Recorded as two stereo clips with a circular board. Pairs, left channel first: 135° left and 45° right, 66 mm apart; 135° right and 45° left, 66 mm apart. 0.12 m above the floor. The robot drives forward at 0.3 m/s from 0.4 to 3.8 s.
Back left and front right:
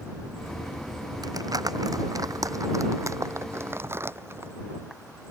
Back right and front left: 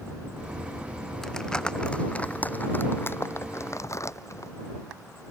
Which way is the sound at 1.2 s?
55° right.